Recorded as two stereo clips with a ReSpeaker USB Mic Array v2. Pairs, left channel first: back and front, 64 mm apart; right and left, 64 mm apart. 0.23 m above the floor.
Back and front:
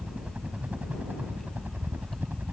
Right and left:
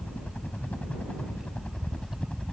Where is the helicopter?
50° right; by 2.5 s 25° right.